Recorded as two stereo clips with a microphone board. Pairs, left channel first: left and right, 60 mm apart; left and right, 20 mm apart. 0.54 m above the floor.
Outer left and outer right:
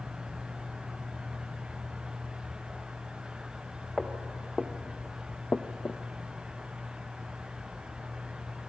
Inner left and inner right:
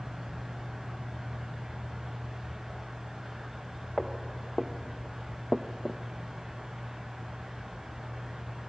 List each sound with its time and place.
4.0 s footsteps: 10° right (ahead or behind), 2 m; by 6.0 s 45° left (ahead or behind), 0.9 m